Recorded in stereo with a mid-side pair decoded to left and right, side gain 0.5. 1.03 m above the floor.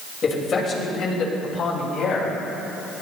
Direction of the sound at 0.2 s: 45° left.